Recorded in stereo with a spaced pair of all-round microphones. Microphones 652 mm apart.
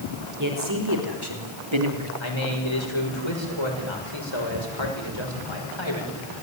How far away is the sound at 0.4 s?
About 5 m.